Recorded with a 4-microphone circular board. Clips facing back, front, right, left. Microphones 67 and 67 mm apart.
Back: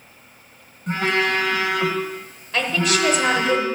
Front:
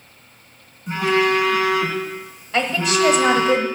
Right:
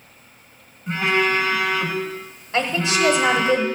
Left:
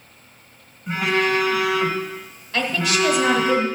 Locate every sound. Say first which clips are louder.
0.9 s a phone buzzing: front 3 dB, even; 175° left, 1.6 m
2.5 s a woman speaking: front 1 dB, right 1 dB; 75° right, 1.2 m